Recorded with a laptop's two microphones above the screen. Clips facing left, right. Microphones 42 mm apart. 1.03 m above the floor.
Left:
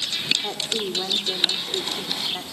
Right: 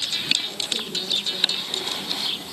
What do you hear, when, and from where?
0.4 s a woman speaking: 85° left, 2.5 m